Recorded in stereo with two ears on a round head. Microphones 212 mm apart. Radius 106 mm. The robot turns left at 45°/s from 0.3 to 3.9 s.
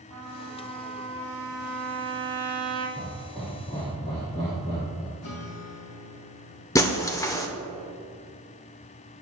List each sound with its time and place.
0.1 s a trumpet: 75° right, 3.5 m; by 2.9 s 170° left, 3.5 m
3.0 s laughter: 15° right (ahead or behind), 2.5 m; by 5.1 s 25° left (ahead or behind), 2.5 m
5.2 s a guitar: 70° left (ahead or behind), 1.6 m
6.8 s breaking glass: 15° left (ahead or behind), 0.9 m